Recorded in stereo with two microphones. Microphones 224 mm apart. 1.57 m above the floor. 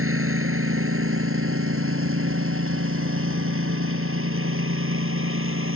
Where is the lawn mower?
80° right; by 5.8 s 75° right (ahead or behind).